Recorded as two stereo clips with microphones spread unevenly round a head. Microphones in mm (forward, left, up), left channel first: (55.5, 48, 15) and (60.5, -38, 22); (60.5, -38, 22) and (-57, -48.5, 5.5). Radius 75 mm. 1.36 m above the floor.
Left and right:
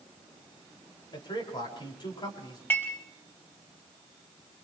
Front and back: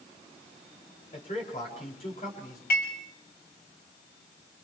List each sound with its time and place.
1.1 s a man speaking: 60° left, 7 m
2.7 s dishes clattering: 25° left, 5 m